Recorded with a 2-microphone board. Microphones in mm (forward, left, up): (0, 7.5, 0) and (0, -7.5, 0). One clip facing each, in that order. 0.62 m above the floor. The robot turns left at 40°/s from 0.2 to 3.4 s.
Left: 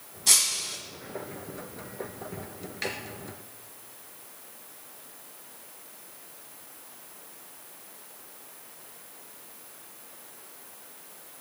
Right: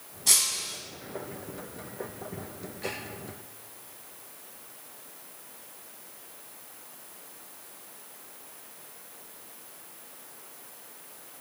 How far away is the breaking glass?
About 2.0 m.